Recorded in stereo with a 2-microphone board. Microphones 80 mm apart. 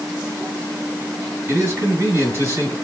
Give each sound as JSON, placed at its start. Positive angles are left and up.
{"t": 1.5, "sound": "a man speaking", "side_deg": -35, "distance_m": 2.5}